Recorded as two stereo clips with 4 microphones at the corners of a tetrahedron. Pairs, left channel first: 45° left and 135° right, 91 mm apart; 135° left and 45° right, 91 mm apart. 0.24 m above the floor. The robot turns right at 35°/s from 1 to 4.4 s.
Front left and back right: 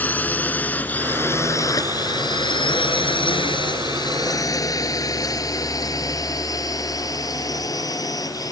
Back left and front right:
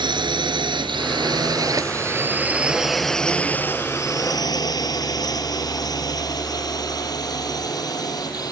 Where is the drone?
25° right; by 8.5 s 90° left.